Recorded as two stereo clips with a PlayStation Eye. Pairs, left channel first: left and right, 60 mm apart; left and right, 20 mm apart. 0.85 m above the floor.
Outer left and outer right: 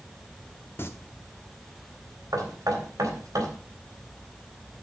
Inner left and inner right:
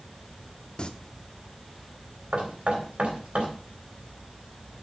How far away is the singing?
About 0.9 m.